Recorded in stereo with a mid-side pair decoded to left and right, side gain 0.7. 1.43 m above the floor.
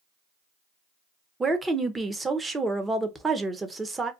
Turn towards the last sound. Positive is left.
turn(degrees=-15)